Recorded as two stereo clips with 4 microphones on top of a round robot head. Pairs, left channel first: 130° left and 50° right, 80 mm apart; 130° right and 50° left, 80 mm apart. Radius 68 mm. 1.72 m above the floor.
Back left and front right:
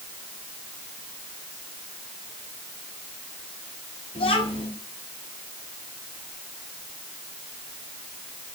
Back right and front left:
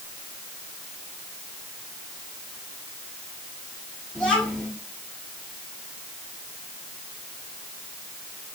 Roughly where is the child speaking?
Behind left.